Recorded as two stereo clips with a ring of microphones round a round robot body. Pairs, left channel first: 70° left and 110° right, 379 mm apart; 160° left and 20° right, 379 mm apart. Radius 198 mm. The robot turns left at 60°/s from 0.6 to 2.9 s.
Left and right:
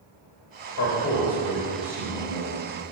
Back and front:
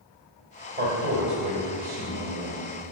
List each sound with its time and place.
0.8 s a man speaking: 40° left, 1.7 m; by 2.6 s 70° right, 1.7 m